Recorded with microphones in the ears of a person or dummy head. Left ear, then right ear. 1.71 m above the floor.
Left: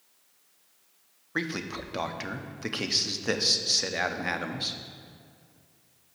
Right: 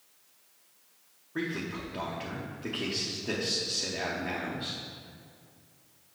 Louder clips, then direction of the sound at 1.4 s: Left 3 dB; 50° left (ahead or behind).